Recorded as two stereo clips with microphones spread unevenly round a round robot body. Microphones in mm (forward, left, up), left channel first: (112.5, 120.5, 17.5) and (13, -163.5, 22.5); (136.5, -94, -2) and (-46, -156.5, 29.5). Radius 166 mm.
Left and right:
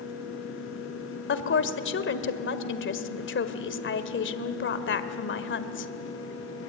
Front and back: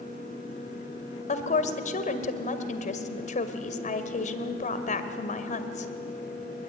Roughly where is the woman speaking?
Ahead left.